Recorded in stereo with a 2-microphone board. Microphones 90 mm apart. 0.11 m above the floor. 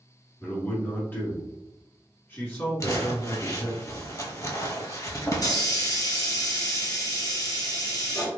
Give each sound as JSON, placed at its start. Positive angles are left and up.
{"t": 0.4, "sound": "a man speaking", "side_deg": 20, "distance_m": 1.3}
{"t": 2.8, "sound": "crumpling", "side_deg": 35, "distance_m": 0.7}
{"t": 5.3, "sound": "a hiss", "side_deg": 40, "distance_m": 1.0}